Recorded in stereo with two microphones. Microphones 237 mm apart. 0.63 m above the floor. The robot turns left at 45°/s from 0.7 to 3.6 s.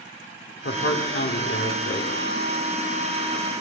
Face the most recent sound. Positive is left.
turn(degrees=-25)